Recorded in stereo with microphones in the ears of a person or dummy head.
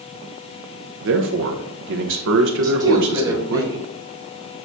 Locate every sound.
1.0 s a man speaking: 65° right (ahead or behind), 0.9 m
2.6 s a woman speaking: 20° right (ahead or behind), 3.5 m